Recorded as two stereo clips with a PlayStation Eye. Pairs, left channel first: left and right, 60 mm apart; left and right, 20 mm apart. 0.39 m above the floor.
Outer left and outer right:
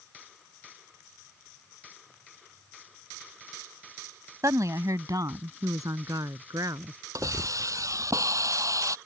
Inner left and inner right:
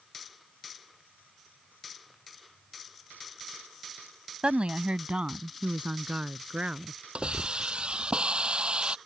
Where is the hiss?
65° right (ahead or behind).